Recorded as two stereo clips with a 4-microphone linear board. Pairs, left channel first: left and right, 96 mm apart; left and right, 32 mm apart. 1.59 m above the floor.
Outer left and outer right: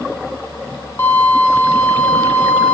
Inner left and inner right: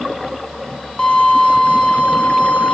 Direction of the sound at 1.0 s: 25° left (ahead or behind).